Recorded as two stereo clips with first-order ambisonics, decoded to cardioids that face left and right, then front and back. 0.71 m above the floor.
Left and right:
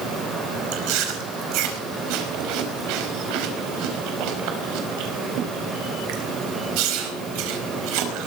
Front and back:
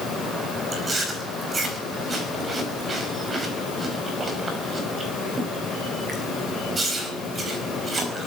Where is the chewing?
105° right, 5 m.